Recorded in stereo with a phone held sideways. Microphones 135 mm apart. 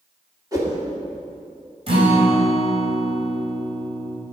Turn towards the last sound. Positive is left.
turn(degrees=-45)  # may be behind; listen again after turning